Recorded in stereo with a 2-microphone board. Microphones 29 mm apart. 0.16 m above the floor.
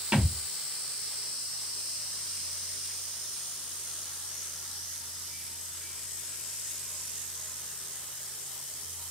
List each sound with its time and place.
0.1 s a thud: 40° right (ahead or behind), 1.3 m